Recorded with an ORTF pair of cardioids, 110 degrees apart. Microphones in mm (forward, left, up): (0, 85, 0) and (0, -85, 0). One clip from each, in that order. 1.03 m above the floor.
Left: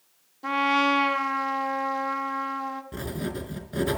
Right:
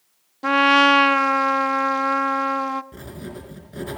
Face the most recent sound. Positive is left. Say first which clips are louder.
# left 4 dB
turn(degrees=25)